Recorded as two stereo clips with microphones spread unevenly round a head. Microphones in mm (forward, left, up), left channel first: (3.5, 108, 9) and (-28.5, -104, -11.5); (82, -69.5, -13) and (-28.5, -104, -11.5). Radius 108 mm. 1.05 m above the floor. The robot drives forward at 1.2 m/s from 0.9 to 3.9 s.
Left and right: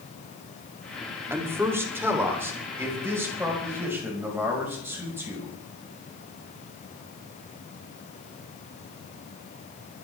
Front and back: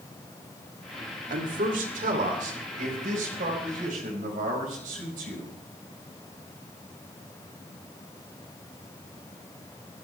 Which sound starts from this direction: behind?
A man speaking, at 1.3 s.